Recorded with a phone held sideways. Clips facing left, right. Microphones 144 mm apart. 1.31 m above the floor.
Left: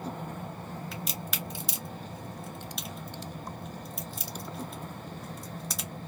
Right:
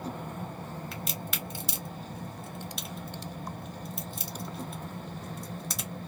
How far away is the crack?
About 0.9 m.